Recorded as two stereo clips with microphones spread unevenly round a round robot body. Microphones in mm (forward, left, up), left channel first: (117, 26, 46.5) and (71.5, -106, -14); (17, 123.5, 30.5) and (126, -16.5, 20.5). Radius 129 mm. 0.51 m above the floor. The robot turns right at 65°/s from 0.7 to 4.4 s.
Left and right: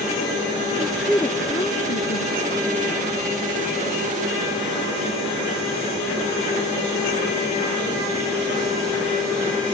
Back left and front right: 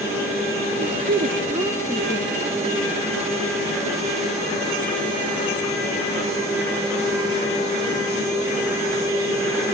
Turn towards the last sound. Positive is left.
turn(degrees=-160)